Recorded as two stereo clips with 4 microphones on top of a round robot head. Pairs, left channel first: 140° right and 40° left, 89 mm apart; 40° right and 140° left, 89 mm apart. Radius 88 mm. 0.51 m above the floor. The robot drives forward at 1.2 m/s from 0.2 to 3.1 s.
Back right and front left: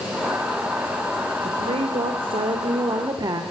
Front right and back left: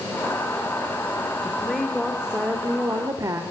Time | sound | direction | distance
1.4 | a woman speaking | 40° left | 3 m